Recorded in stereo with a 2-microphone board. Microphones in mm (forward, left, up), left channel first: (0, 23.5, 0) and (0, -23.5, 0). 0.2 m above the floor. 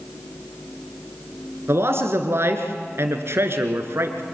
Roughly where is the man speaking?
Right.